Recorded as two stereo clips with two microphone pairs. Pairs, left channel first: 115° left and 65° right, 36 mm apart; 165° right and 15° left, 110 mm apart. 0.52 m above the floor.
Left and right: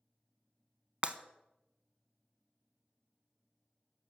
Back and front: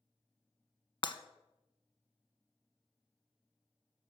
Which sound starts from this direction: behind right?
Breaking glass, at 1.0 s.